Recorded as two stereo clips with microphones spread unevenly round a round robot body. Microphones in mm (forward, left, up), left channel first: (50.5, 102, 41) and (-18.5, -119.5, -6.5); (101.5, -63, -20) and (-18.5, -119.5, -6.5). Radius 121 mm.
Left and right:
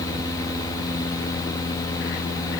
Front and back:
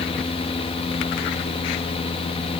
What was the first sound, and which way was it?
Only background noise.